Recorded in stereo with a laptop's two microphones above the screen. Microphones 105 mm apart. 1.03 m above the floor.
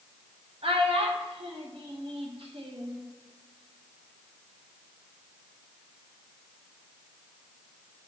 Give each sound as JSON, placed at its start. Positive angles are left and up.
{"t": 0.6, "sound": "a child speaking", "side_deg": -65, "distance_m": 1.0}